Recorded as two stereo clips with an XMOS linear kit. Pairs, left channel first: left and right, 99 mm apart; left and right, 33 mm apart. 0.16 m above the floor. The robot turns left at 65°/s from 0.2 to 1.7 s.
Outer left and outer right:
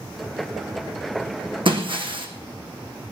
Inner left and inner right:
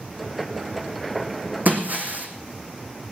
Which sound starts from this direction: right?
Breaking glass, at 1.6 s.